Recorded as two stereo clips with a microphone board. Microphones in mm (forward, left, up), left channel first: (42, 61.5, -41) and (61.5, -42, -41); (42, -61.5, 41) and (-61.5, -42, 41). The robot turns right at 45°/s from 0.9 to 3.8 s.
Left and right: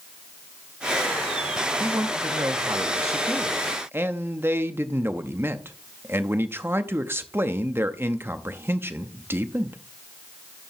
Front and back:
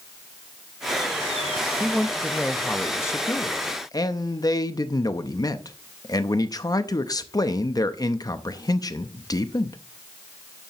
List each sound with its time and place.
1.8 s a man speaking: 120° right, 0.6 m; by 9.8 s 30° right, 0.6 m